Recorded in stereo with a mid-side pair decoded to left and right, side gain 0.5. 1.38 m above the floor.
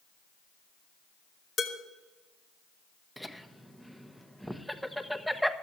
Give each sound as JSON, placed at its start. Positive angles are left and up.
{"t": 1.6, "sound": "dishes clattering", "azimuth_deg": 40, "distance_m": 3.0}
{"t": 3.2, "sound": "laughter", "azimuth_deg": 0, "distance_m": 1.4}